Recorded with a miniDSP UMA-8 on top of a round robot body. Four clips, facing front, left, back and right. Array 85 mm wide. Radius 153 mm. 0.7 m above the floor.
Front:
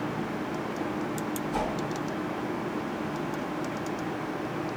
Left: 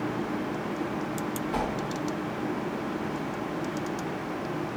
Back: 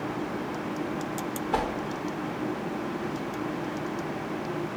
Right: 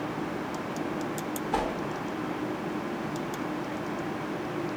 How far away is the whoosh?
About 3 m.